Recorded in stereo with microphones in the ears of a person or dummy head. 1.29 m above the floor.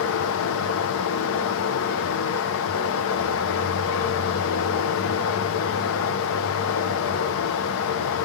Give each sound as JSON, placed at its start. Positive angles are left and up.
{"t": 0.0, "sound": "running water", "side_deg": 65, "distance_m": 0.8}